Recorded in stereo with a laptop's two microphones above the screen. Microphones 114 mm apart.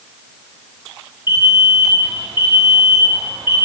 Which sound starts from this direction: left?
An alarm, at 1.3 s.